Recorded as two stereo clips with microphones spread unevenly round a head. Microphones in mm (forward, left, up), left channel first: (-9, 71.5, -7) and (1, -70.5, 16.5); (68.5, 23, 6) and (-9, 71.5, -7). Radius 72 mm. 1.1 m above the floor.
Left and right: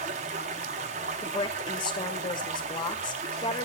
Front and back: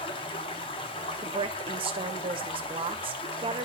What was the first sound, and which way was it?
Running water, 55° right.